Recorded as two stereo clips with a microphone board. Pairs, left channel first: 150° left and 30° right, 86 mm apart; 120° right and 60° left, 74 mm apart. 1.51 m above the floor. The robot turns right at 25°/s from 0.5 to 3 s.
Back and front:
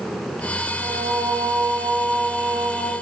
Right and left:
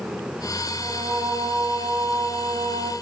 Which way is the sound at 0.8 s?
5° left.